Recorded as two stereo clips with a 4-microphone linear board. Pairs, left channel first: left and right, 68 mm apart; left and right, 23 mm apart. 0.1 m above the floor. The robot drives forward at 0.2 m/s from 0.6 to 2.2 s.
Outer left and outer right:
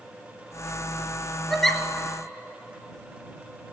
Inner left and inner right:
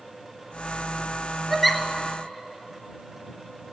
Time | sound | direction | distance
1.5 | a giggle | 5° left (ahead or behind) | 1.0 m